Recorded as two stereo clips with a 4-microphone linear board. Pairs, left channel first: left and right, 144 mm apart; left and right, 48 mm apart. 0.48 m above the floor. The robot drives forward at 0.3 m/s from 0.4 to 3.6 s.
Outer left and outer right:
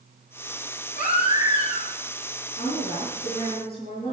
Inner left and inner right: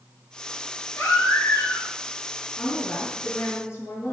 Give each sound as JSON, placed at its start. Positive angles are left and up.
{"t": 1.0, "sound": "a baby crying", "side_deg": 60, "distance_m": 4.5}
{"t": 2.6, "sound": "a woman speaking", "side_deg": 40, "distance_m": 5.5}